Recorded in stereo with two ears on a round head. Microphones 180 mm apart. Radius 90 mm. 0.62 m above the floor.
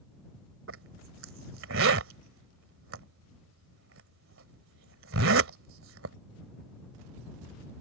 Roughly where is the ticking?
I don't hear ticking.